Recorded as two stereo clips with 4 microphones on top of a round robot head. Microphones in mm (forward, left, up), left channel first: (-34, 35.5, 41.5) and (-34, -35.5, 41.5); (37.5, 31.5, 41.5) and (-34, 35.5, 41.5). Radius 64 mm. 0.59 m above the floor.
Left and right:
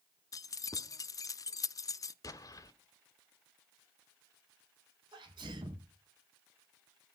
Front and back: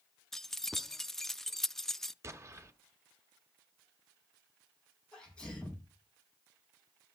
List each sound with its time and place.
0.3 s keys jangling: 80° left, 0.7 m
2.2 s an explosion: 125° left, 1.8 m
5.1 s a sneeze: 80° right, 5.5 m